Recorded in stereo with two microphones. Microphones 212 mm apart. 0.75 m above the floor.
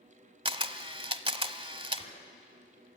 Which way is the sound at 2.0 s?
30° left (ahead or behind).